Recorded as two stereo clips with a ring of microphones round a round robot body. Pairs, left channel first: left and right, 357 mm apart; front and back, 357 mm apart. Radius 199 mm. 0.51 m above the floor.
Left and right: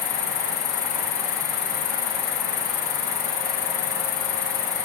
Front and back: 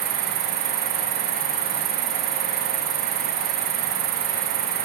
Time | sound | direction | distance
0.0 | an insect | 120° left | ?